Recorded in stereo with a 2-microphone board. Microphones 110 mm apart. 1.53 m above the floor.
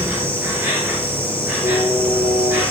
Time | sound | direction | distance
0.0 | an insect | 20° right (ahead or behind) | 3.5 m
1.6 | singing | 10° right (ahead or behind) | 8 m